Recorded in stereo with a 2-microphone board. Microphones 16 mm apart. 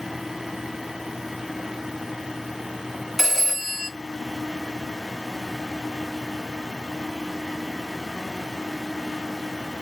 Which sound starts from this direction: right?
A phone ringing, at 3.2 s.